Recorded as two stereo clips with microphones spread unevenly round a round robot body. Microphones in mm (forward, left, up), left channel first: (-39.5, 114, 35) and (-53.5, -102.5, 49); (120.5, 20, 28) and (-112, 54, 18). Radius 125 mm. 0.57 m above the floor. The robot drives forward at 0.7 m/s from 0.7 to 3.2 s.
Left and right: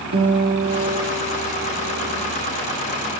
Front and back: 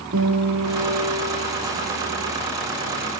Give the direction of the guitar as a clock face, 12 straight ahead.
4 o'clock.